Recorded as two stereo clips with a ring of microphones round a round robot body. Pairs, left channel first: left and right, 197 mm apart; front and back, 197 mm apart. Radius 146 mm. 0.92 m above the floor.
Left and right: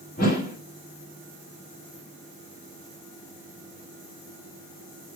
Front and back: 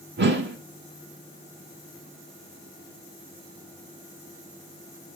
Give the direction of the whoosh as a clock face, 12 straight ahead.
7 o'clock.